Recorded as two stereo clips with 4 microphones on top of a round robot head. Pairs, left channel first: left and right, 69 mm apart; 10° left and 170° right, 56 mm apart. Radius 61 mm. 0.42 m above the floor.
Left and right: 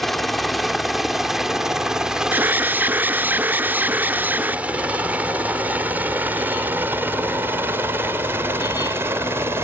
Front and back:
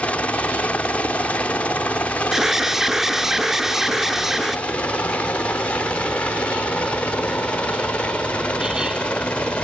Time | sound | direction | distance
0.0 | a helicopter | 5° left | ?
2.3 | an alarm | 95° right | ?